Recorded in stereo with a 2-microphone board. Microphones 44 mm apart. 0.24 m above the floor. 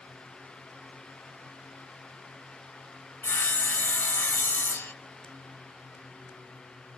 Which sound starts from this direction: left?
Sawing, at 3.2 s.